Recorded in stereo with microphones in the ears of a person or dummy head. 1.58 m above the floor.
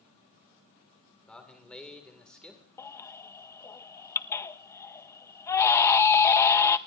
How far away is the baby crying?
About 0.6 m.